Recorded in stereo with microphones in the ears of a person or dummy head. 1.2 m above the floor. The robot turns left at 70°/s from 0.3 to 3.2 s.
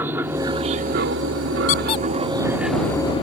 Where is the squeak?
45° left (ahead or behind); by 2.0 s 25° left (ahead or behind).